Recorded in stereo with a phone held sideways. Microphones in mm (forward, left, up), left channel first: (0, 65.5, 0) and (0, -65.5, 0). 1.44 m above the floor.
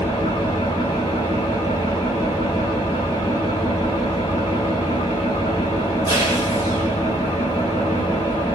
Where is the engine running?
35° left (ahead or behind), 1.6 m.